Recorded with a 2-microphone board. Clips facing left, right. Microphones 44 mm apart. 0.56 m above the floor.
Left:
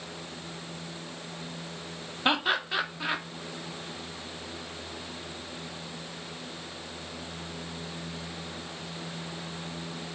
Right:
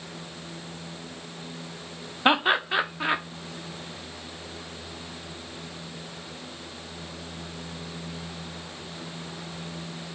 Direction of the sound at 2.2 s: 25° right (ahead or behind).